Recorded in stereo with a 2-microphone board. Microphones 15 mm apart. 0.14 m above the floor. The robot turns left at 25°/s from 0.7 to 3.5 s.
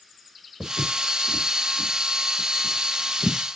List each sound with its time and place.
0.6 s footsteps: 40° right (ahead or behind), 1.7 m; by 3.4 s 75° left (ahead or behind), 1.9 m